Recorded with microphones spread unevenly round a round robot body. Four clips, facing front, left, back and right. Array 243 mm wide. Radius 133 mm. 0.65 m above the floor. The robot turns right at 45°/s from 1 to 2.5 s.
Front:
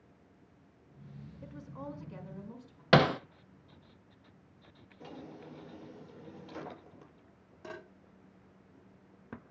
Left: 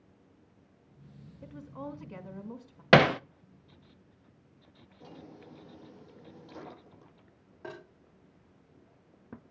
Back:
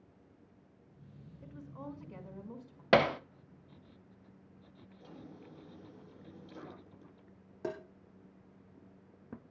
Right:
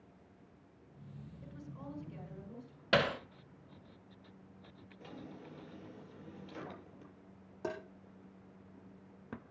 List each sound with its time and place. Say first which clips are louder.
1.4 s a woman speaking: left 8 dB, front 2 dB; 30° left, 5.5 m; by 2.8 s 80° left, 5.5 m
2.9 s hammering: left 10 dB, front 2 dB; 55° left, 0.7 m
5.0 s a drawer: left 1 dB, front 5 dB; 5° left, 7.5 m
7.6 s tapping: right 4 dB, back 6 dB; 160° right, 5.5 m